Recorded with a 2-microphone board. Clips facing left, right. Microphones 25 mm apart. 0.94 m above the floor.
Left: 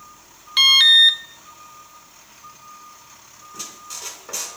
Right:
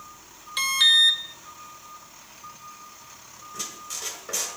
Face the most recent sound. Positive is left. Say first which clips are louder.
# even
turn(degrees=15)  # may be behind; listen again after turning